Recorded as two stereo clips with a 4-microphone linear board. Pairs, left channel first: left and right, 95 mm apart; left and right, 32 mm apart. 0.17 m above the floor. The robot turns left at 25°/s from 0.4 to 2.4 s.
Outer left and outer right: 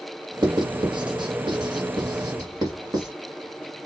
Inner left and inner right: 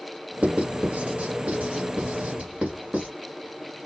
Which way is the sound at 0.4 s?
50° right (ahead or behind).